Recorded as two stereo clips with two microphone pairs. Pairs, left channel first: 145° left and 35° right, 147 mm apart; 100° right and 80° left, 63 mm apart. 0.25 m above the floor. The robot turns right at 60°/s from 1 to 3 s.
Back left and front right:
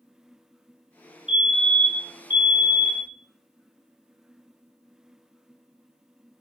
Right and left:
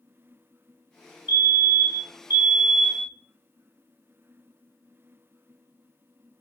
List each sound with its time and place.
1.3 s a fire alarm: 45° left, 3 m; by 3.1 s 150° left, 3 m